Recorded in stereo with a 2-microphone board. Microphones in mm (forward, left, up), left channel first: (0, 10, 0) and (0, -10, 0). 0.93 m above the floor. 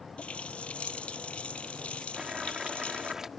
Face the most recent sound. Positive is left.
turn(degrees=-20)  # may be behind; listen again after turning